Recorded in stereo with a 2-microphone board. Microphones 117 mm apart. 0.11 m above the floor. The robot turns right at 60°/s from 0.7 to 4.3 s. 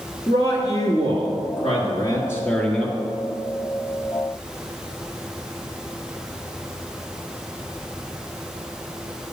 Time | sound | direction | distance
0.3 | a man speaking | 50° left | 1.9 m